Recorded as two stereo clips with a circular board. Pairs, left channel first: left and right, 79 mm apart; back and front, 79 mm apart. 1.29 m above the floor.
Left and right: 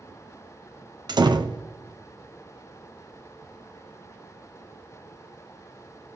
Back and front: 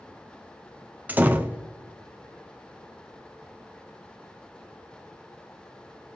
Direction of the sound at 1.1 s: 65° right.